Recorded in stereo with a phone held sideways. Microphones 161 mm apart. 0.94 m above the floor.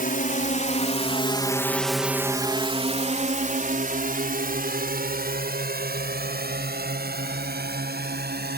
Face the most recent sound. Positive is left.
turn(degrees=-80)